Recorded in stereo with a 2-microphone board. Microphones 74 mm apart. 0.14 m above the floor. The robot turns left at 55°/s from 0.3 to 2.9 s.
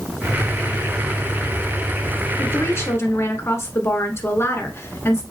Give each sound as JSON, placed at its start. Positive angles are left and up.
{"t": 2.4, "sound": "a woman speaking", "side_deg": 30, "distance_m": 1.3}